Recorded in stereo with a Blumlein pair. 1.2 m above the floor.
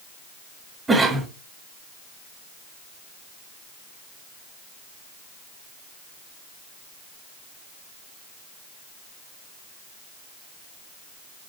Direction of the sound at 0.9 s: 10° right.